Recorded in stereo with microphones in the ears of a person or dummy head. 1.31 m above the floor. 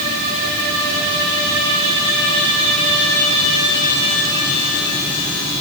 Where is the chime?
No chime in this recording.